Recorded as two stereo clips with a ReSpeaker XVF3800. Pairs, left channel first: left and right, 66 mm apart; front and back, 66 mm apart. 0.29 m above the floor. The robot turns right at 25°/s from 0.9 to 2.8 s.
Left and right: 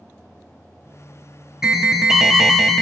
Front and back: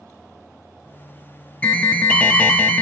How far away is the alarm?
About 0.6 m.